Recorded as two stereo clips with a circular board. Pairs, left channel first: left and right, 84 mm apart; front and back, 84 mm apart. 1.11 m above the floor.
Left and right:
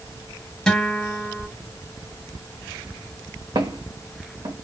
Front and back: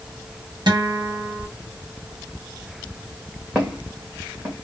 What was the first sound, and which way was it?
A guitar, 170° left.